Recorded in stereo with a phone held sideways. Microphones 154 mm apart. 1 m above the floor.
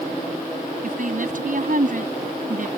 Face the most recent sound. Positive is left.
turn(degrees=-60)  # may be behind; listen again after turning